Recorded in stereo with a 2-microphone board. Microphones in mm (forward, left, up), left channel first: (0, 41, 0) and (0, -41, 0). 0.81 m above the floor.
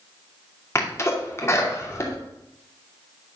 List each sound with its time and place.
0.8 s a sneeze: 35° left (ahead or behind), 2.5 m